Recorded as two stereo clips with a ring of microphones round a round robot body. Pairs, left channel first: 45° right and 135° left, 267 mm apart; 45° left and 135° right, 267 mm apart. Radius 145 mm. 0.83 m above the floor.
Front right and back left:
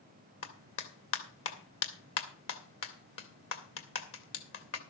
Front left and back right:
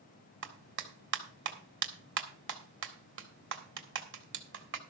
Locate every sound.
0.4 s a clap: 85° right, 2.0 m